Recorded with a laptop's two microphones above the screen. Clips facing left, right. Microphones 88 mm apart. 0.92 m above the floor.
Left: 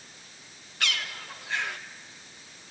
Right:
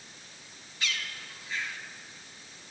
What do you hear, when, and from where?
0.8 s a bird: 65° left (ahead or behind), 0.8 m